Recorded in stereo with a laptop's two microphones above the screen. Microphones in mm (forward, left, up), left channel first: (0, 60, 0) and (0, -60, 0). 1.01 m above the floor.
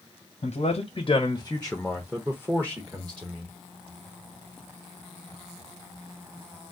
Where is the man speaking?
65° left (ahead or behind), 0.9 m; by 3.5 s 40° right (ahead or behind), 1.5 m.